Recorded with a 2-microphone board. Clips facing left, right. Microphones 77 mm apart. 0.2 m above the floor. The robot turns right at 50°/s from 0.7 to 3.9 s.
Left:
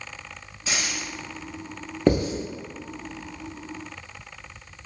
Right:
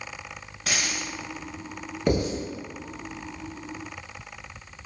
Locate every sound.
0.7 s a dropped coin: 65° right (ahead or behind), 1.3 m
2.1 s writing: 30° left (ahead or behind), 0.8 m; by 2.3 s 45° left (ahead or behind), 0.8 m